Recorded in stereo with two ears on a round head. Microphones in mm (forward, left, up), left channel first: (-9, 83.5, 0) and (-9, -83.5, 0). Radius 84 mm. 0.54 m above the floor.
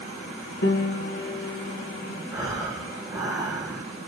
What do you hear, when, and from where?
0.6 s a piano: 60° left (ahead or behind), 2.5 m
2.3 s breathing: 20° right (ahead or behind), 7 m